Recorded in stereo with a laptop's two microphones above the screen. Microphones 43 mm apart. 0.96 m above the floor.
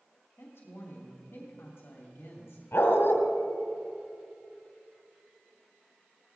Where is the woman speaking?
60° left (ahead or behind), 2.5 m.